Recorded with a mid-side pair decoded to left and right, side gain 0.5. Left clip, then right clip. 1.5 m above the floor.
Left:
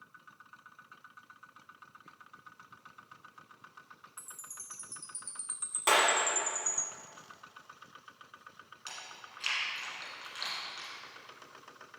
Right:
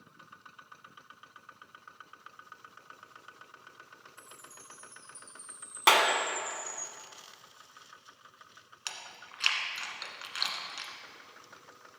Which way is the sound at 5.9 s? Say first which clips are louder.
Right 3 dB; 65° right.